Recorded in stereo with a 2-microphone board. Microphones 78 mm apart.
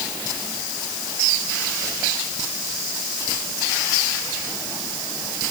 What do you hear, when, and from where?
Only background noise.